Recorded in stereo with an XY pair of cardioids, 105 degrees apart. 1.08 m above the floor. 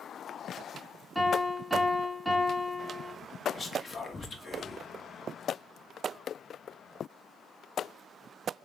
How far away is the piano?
About 2.0 m.